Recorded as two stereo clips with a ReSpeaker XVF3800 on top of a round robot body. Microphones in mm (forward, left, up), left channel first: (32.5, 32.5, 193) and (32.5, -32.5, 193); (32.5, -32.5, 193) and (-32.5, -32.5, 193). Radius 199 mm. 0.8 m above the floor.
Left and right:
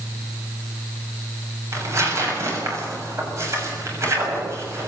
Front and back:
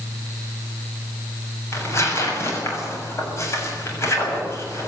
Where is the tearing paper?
45° right, 7 m.